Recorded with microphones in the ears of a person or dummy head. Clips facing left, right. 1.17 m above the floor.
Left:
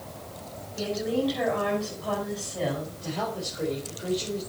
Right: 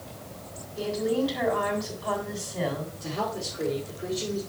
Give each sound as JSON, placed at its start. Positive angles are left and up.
{"t": 0.8, "sound": "a woman speaking", "side_deg": -10, "distance_m": 6.5}
{"t": 3.0, "sound": "a woman speaking", "side_deg": -10, "distance_m": 4.5}